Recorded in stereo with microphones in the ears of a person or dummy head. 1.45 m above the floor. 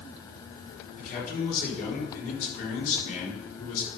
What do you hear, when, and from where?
1.0 s a man speaking: 45° left (ahead or behind), 4 m